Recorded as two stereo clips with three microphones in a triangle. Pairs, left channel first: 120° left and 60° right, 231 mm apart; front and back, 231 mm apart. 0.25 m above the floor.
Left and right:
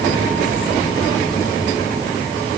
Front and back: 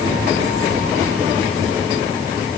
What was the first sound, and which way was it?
Only background noise.